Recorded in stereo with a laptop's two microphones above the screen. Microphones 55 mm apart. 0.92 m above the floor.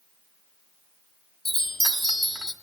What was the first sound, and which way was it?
A chime, 5° left (ahead or behind).